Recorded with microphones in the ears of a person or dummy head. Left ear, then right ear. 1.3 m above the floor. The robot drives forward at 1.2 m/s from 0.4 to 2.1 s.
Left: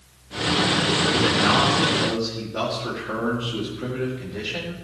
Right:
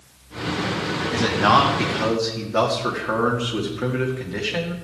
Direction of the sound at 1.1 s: 85° right.